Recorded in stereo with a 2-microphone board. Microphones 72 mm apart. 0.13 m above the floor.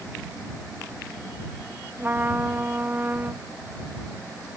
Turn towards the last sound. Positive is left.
turn(degrees=-30)  # may be behind; listen again after turning